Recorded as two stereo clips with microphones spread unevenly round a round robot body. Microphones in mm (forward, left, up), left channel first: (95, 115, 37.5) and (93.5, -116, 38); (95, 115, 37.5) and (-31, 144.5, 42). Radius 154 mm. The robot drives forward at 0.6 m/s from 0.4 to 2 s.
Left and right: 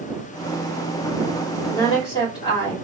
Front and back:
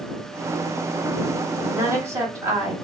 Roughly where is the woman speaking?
Behind left.